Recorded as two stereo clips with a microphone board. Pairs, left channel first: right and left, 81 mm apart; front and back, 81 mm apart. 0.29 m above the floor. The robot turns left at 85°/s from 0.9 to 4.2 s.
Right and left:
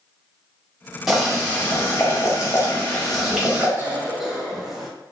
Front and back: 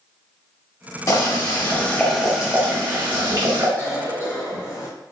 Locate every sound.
1.1 s boiling: 10° left, 1.0 m; by 3.7 s 145° left, 1.0 m
3.8 s a cough: 45° left, 1.1 m; by 4.9 s 5° left, 1.1 m